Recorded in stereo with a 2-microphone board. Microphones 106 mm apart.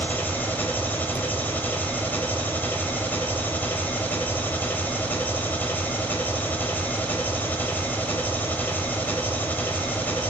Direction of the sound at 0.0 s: 20° left (ahead or behind).